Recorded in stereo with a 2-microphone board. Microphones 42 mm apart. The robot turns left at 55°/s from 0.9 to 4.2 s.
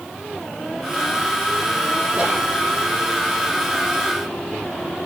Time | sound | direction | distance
2.1 | whispering | 25° right (ahead or behind) | 1.2 m